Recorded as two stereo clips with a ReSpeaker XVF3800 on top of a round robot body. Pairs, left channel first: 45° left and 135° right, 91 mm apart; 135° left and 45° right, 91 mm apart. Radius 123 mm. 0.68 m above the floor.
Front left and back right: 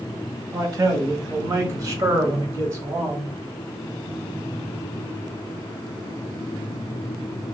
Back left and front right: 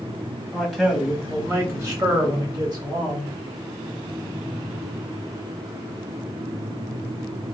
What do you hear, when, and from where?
0.5 s a man speaking: 140° right, 1.3 m; by 3.3 s 75° right, 2.5 m